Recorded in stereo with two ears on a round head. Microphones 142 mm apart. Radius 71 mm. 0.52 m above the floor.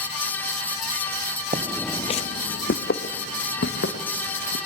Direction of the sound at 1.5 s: 45° right (ahead or behind).